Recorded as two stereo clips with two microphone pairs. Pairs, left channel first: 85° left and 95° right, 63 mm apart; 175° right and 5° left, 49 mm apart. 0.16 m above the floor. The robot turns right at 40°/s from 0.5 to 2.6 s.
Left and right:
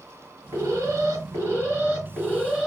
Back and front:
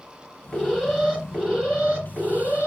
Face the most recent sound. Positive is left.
turn(degrees=-20)